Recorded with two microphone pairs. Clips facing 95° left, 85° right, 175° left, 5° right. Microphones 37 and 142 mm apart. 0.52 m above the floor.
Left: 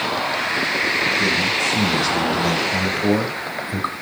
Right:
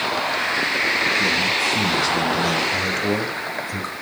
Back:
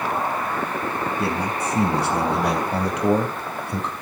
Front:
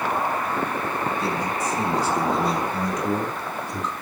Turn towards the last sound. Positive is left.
turn(degrees=150)